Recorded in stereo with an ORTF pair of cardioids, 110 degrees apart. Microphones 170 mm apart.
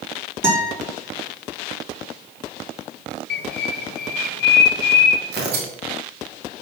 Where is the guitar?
15° right, 4 m.